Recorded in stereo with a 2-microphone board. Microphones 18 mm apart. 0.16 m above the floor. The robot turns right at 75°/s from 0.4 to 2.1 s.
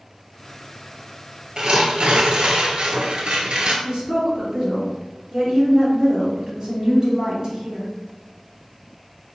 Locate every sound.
1.6 s tearing paper: 135° right, 0.9 m; by 3.7 s 95° right, 0.9 m
3.8 s a woman speaking: 40° right (ahead or behind), 1.4 m